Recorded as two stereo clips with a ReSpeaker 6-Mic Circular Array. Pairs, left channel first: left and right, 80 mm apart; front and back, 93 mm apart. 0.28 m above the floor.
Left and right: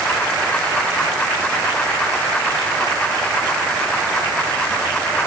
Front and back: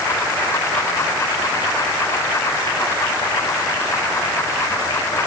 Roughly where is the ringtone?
No ringtone in this recording.